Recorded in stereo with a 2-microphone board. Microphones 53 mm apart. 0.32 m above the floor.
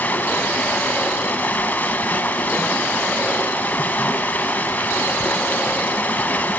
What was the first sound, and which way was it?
Running water, 35° left (ahead or behind).